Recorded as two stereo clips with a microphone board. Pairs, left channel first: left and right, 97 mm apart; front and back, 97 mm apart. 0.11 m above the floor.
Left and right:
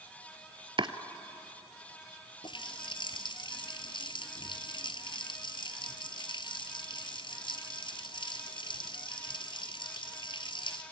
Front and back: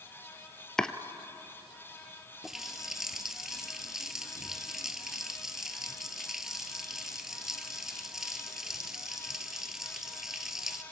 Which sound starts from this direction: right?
Chopping, at 0.8 s.